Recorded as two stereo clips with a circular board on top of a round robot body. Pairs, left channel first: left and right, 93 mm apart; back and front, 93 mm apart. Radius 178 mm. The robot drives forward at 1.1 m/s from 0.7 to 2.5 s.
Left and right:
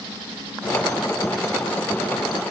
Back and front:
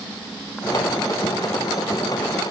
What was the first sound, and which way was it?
Only background noise.